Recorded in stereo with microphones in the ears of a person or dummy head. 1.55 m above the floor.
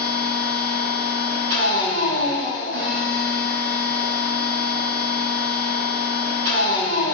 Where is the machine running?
60° right (ahead or behind), 0.8 m.